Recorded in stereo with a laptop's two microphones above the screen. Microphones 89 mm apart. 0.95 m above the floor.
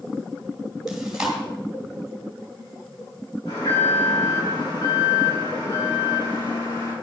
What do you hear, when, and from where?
0.9 s chewing: 10° right (ahead or behind), 2.5 m
3.5 s an alarm: 60° left (ahead or behind), 5.5 m